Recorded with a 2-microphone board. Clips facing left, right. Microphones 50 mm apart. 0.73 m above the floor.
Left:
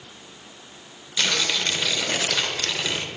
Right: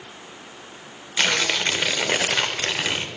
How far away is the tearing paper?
About 0.8 m.